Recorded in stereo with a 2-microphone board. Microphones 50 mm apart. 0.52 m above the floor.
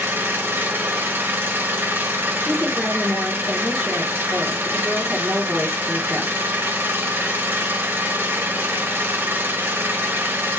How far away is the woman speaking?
About 1.2 m.